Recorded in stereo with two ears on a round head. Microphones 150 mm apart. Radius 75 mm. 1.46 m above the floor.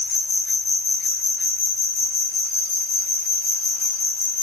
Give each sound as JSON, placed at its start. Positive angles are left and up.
{"t": 0.0, "sound": "an insect", "side_deg": 40, "distance_m": 1.3}